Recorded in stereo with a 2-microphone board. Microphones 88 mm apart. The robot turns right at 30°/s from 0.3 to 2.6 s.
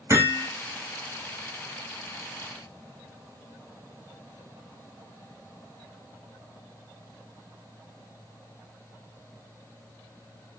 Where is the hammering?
30° right (ahead or behind), 3 m; by 0.5 s 25° right (ahead or behind), 3 m.